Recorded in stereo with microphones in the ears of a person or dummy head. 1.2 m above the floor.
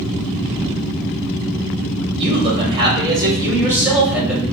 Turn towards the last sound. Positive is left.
turn(degrees=0)  # may be behind; listen again after turning